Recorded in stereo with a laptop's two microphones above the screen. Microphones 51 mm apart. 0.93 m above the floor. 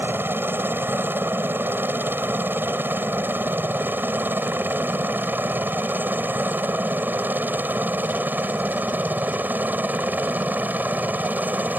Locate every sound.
0.0 s a helicopter: 45° right (ahead or behind); by 11.8 s 35° right (ahead or behind)